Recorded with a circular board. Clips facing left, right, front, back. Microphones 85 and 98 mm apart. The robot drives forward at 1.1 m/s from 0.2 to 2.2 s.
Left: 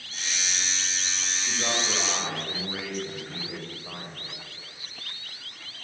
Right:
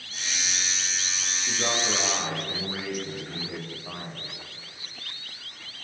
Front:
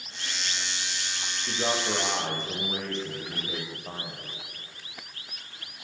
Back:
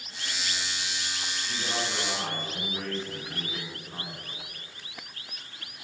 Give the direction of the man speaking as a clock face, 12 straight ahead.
12 o'clock.